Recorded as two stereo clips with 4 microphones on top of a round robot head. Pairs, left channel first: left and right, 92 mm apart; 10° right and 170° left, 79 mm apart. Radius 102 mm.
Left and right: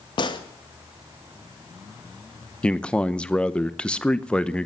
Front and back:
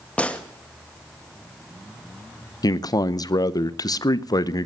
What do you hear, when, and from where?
0.2 s a gunshot: 65° left, 1.9 m
2.6 s a man speaking: 15° left, 0.9 m